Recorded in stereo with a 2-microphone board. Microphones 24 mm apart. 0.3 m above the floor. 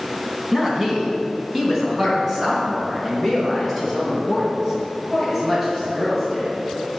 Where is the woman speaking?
25° right (ahead or behind), 2.5 m; by 6.5 s 15° right (ahead or behind), 6 m.